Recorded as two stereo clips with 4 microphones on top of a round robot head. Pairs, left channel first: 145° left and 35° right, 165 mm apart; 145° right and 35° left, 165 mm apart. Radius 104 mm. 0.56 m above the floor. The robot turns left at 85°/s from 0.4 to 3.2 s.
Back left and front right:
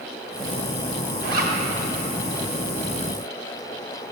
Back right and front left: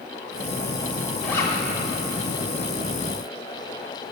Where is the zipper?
60° right, 1.0 m; by 1.6 s 85° right, 1.0 m.